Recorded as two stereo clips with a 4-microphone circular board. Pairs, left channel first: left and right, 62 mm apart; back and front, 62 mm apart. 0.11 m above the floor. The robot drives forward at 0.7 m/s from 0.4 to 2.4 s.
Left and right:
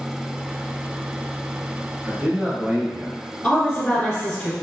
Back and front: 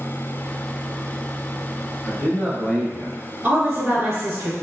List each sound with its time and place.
2.0 s a man speaking: 130° right, 1.3 m; by 3.2 s 140° right, 1.4 m
3.4 s a woman speaking: 25° left, 1.2 m